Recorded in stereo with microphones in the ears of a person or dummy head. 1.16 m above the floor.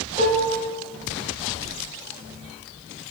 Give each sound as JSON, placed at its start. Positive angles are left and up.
{"t": 0.2, "sound": "dishes clattering", "side_deg": 35, "distance_m": 3.0}